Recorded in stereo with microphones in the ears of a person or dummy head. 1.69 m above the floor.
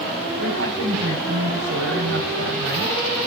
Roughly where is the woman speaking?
Right.